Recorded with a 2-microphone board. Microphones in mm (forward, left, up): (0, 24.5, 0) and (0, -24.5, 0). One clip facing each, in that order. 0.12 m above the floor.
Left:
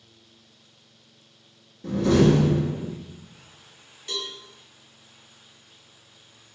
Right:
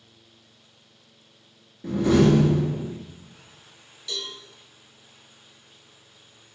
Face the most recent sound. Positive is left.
turn(degrees=30)  # may be behind; listen again after turning